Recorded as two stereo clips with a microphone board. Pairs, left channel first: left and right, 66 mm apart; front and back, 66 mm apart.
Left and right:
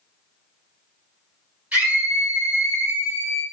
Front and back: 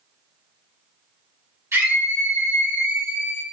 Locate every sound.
1.7 s a scream: 155° right, 1.8 m